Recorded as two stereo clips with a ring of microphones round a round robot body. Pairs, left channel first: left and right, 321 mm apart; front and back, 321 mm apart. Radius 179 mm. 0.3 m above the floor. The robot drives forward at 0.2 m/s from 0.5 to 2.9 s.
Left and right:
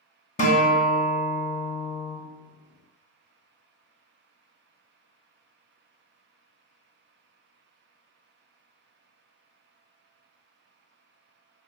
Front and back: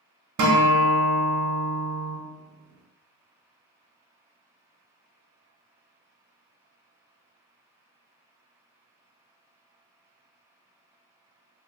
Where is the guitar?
155° left, 0.7 m; by 2.2 s 165° left, 1.0 m.